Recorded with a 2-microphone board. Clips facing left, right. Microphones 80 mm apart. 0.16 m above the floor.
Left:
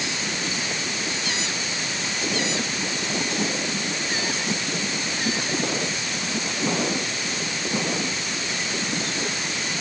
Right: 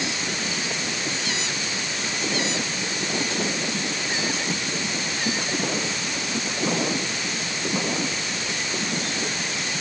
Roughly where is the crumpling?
I don't hear crumpling.